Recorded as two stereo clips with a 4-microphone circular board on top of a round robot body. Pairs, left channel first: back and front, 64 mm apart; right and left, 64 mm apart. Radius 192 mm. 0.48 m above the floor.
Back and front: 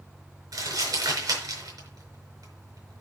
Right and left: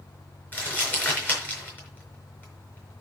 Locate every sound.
0.5 s crumpling: 30° right, 5 m